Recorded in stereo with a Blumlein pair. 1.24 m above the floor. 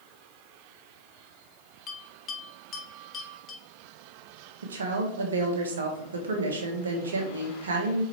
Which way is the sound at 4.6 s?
70° right.